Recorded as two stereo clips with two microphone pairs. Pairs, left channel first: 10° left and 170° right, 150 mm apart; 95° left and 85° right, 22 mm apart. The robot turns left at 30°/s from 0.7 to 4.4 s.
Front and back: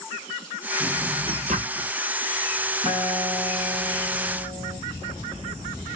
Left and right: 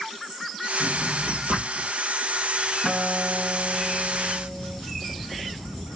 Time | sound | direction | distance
0.8 | a drawer | 115° right | 1.5 m
2.8 | a guitar | 150° left | 2 m